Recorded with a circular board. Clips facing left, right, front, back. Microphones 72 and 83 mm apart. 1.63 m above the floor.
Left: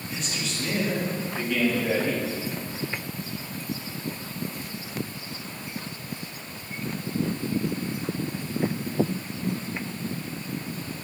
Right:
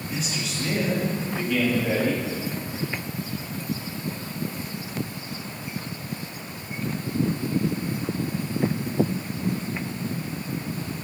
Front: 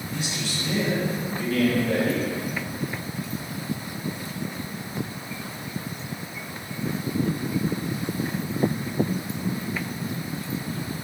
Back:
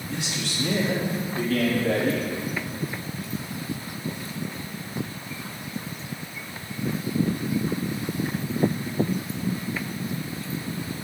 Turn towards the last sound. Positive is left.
turn(degrees=180)